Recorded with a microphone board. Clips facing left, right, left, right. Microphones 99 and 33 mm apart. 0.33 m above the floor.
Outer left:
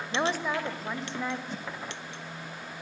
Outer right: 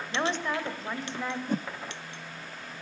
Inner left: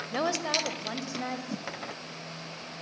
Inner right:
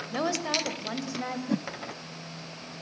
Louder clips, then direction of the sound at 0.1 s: Outer left 1 dB, even; 10° left (ahead or behind).